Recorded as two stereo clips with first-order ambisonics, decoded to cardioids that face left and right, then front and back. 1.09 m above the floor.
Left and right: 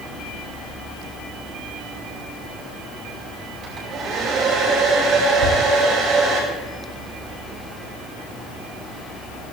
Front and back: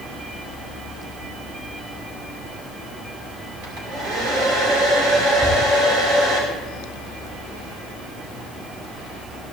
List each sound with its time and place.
3.6 s a hair dryer: 145° right, 5 m
5.4 s a whoosh: 110° right, 7 m